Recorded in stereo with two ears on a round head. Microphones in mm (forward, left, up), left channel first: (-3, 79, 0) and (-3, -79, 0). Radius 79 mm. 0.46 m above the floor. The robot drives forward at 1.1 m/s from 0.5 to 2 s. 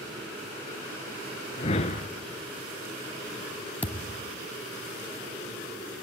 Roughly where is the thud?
Centre.